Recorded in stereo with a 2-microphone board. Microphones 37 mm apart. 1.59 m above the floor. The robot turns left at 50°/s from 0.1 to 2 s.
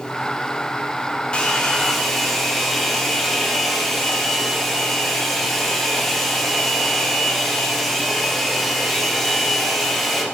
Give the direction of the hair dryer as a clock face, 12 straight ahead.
11 o'clock.